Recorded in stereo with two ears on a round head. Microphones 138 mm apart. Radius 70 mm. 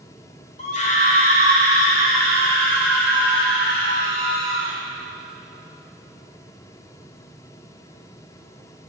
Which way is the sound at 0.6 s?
50° left (ahead or behind).